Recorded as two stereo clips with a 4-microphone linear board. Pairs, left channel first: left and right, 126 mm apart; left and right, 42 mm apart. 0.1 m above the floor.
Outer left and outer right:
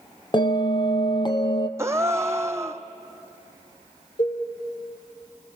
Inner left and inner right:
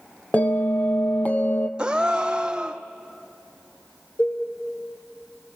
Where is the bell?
40° left (ahead or behind), 1.2 m.